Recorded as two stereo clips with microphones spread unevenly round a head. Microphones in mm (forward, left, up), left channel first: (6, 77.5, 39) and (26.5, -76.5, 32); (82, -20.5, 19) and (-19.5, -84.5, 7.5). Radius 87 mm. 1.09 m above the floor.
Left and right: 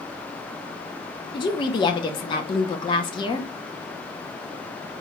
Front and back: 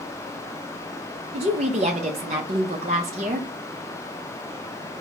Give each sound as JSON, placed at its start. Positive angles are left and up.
{"t": 1.3, "sound": "a woman speaking", "azimuth_deg": 160, "distance_m": 0.5}